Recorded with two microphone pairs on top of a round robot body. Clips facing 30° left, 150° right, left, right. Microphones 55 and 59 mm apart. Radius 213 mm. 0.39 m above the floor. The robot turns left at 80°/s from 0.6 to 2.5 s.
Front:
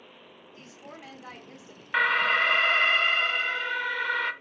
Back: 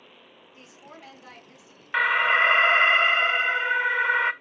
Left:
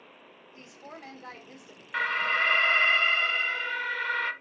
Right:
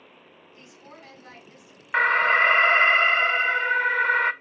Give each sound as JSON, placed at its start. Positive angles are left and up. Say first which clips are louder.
{"t": 0.5, "sound": "a woman speaking", "louder": "front 1 dB, left 2 dB", "azimuth_deg": 140, "distance_m": 1.9}
{"t": 1.9, "sound": "an alarm", "louder": "back 3 dB, right 8 dB", "azimuth_deg": -75, "distance_m": 0.6}